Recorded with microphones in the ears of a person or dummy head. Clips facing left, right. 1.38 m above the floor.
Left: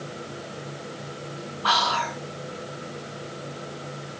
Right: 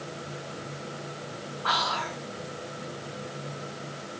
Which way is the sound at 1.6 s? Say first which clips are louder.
Left 5 dB; 50° left (ahead or behind).